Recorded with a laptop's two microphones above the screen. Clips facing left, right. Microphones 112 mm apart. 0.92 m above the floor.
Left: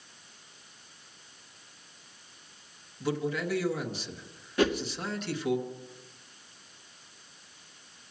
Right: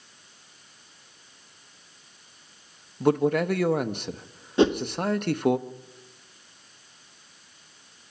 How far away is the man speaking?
About 1.1 m.